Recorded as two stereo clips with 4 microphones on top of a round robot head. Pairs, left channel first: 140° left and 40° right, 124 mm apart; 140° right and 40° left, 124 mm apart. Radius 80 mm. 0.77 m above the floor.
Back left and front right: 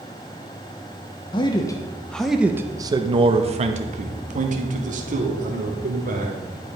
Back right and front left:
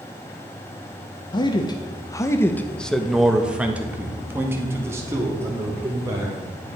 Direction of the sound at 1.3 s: Straight behind.